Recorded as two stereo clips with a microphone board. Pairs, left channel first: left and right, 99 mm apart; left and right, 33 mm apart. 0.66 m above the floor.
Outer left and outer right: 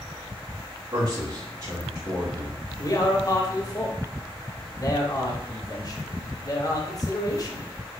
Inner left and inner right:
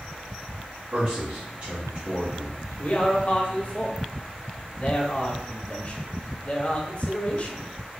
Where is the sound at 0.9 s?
40° right (ahead or behind), 2 m.